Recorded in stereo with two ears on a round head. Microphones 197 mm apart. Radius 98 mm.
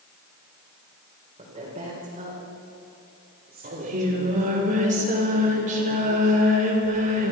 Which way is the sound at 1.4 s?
25° right (ahead or behind).